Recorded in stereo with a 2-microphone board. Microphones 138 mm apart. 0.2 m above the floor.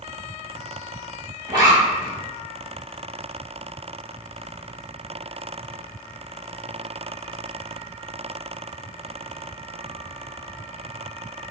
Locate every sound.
1.5 s a zipper: 30° right (ahead or behind), 1.7 m